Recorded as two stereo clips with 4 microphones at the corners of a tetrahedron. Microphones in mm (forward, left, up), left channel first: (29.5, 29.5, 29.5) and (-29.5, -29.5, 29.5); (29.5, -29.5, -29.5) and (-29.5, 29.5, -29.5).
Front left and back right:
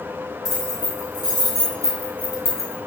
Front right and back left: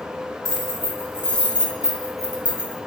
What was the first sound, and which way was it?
Keys jangling, 95° right.